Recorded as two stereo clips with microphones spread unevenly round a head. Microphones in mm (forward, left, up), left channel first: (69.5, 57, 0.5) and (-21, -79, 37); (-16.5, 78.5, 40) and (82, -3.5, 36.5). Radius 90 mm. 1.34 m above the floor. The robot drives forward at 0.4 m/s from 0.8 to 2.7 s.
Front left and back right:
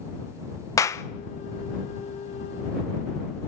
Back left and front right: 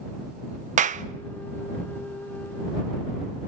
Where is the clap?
15° right, 0.9 m.